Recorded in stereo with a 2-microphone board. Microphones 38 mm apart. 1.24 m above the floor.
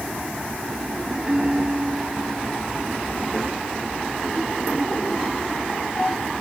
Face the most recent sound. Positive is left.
turn(degrees=-20)  # may be behind; listen again after turning